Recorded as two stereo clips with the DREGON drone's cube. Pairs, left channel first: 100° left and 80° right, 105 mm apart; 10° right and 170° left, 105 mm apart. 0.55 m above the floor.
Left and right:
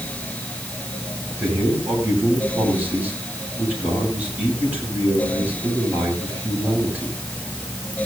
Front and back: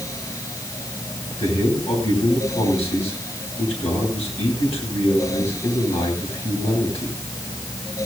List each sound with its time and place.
1.4 s a man speaking: 5° right, 10 m